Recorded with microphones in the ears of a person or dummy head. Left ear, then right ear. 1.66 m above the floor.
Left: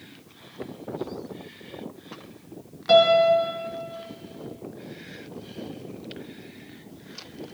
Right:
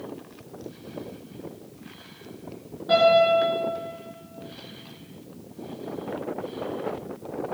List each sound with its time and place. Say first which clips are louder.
2.9 s a piano: left 1 dB; 65° left (ahead or behind), 2 m